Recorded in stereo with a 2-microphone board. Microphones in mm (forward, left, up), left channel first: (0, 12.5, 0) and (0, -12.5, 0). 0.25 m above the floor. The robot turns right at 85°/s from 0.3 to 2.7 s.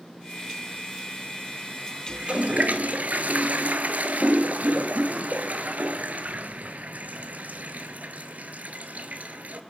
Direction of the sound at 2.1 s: 140° right.